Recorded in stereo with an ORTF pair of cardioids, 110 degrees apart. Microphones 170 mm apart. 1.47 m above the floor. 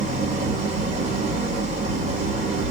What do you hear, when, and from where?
0.0 s an engine running: 45° right, 3 m